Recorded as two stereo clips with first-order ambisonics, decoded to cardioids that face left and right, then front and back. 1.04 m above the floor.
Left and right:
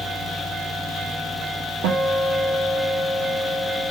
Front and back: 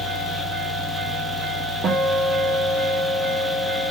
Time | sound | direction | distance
1.8 | a guitar | 115° right | 0.7 m